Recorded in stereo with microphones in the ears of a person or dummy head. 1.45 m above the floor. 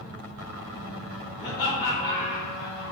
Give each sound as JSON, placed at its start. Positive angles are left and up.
{"t": 1.4, "sound": "laughter", "side_deg": 65, "distance_m": 2.0}